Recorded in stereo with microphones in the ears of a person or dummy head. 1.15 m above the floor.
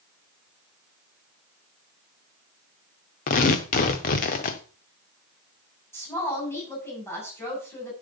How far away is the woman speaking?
About 7 m.